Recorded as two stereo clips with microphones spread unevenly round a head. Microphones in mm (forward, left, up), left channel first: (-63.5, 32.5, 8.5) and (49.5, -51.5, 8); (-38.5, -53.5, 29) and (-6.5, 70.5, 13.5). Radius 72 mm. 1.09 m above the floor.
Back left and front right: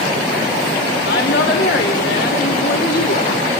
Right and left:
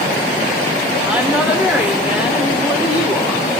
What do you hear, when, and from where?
1.0 s a woman speaking: 155° left, 4 m